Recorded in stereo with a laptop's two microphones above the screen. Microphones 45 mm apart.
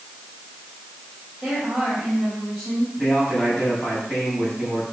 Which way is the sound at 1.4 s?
5° left (ahead or behind).